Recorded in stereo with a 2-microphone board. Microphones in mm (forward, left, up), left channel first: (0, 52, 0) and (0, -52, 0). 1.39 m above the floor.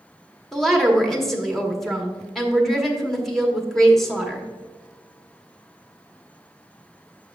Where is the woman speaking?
Centre (ahead or behind), 1.2 m.